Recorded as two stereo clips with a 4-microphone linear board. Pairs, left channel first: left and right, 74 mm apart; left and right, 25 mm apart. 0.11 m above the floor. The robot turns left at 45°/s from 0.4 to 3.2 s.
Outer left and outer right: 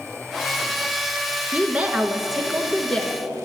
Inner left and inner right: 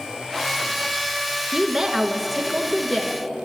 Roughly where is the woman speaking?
Behind right.